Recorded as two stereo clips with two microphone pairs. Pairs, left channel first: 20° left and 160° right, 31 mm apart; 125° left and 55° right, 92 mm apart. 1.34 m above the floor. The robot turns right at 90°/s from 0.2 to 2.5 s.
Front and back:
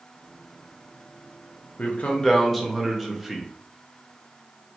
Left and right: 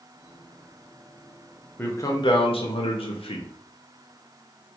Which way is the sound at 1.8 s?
50° left.